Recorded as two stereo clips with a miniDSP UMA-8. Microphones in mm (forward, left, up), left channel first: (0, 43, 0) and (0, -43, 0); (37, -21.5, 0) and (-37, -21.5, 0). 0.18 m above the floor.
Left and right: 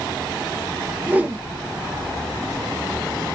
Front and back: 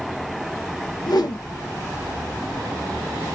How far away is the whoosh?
About 0.5 m.